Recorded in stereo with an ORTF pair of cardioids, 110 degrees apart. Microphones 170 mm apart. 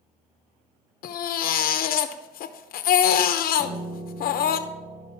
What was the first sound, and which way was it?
A baby crying, 65° left.